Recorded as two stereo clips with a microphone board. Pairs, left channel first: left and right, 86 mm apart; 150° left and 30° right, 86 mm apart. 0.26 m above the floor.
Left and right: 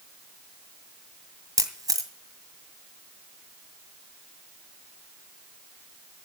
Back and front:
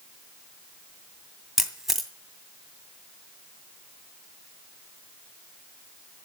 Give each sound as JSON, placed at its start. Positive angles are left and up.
{"t": 1.6, "sound": "a camera shutter", "azimuth_deg": -115, "distance_m": 2.0}